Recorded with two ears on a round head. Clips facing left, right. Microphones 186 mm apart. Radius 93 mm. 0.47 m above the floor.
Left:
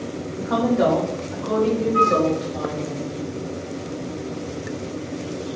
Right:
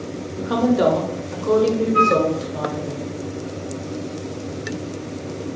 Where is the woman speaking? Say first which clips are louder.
Right 2 dB; 40° right (ahead or behind), 1.2 m.